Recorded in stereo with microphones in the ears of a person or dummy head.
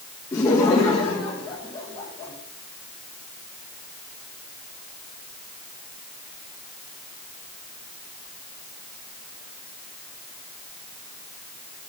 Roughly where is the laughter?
Centre.